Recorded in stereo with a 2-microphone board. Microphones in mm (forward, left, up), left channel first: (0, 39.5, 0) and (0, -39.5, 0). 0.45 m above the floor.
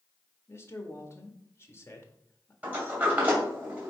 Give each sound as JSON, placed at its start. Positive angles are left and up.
{"t": 0.5, "sound": "a man speaking", "side_deg": 35, "distance_m": 1.5}
{"t": 2.6, "sound": "a sliding door", "side_deg": -20, "distance_m": 2.5}